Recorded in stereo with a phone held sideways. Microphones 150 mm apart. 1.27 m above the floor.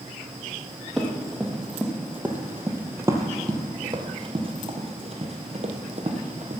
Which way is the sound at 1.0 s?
Centre (ahead or behind).